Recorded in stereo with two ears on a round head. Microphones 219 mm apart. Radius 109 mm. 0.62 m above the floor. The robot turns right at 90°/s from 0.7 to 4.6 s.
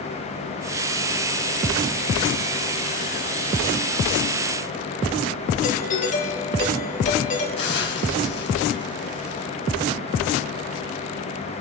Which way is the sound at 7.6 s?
50° left (ahead or behind).